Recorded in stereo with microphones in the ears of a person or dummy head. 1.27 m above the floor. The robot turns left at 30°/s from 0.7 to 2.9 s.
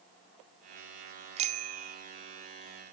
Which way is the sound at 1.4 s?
35° right (ahead or behind).